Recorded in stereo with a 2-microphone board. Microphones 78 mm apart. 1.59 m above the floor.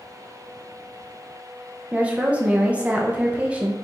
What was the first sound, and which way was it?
A woman speaking, 15° right (ahead or behind).